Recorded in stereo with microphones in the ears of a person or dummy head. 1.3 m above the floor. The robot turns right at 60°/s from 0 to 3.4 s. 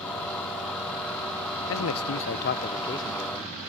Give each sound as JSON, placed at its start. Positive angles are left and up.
{"t": 1.7, "sound": "a man speaking", "azimuth_deg": 75}